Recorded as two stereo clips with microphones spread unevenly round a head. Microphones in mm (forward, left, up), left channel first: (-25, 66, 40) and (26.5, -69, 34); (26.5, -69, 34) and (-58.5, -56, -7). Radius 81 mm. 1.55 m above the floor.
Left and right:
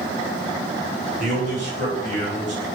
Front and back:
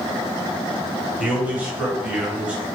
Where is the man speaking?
110° right, 1.5 m.